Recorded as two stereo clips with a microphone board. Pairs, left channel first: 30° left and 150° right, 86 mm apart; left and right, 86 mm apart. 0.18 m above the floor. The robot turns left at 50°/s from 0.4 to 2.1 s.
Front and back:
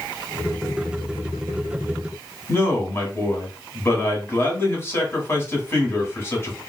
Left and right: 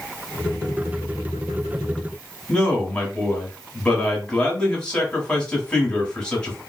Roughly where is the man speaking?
Ahead left.